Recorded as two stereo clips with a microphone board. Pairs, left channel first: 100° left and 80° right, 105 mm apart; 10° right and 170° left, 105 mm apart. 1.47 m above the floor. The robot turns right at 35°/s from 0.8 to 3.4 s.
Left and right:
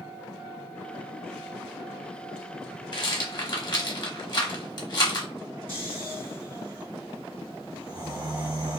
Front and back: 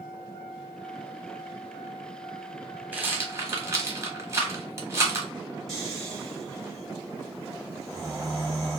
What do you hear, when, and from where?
2.9 s a rattle: 105° left, 1.0 m; by 5.3 s 120° left, 1.0 m
5.7 s snoring: 100° right, 1.6 m